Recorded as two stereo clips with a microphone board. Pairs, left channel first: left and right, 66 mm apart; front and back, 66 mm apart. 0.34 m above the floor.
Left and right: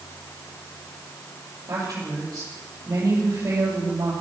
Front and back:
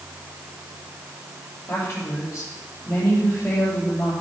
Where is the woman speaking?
50° right, 9 m.